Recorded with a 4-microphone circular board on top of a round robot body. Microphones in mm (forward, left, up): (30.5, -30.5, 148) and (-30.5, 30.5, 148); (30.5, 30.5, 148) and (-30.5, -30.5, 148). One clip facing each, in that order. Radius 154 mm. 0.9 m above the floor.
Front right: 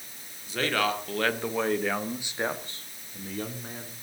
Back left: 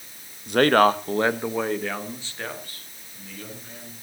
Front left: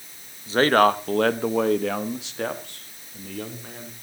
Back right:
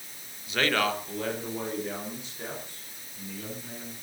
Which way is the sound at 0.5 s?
105° left.